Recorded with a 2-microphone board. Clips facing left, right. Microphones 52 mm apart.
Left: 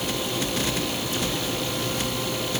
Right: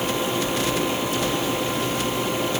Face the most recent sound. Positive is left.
No sound to turn to.